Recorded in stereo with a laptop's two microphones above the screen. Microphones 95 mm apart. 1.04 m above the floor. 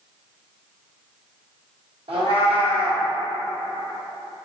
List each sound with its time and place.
2.1 s a cat meowing: 60° right (ahead or behind), 0.9 m